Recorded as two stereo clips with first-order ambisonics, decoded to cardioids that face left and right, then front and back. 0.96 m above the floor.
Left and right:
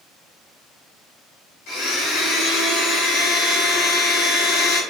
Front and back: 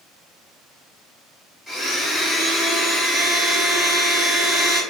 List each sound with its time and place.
1.7 s a blender: 75° left, 1.4 m